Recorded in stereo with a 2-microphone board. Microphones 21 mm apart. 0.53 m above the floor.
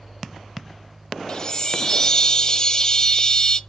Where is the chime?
25° left (ahead or behind), 0.9 m.